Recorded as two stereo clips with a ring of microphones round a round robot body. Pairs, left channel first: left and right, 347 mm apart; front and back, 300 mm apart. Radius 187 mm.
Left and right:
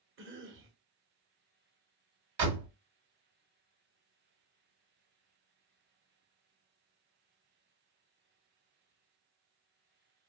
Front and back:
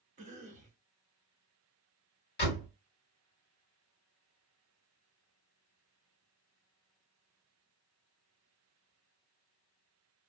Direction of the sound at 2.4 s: 60° right.